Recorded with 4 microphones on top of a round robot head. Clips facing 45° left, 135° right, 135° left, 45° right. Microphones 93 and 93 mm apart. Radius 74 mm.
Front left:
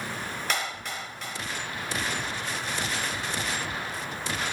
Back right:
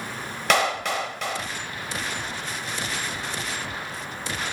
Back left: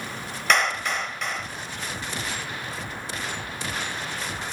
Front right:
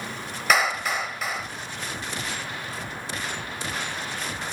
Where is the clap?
130° right.